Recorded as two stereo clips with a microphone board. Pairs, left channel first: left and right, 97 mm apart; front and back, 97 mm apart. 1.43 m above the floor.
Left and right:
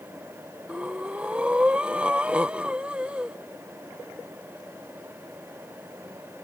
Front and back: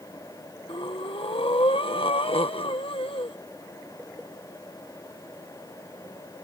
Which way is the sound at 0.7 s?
10° right.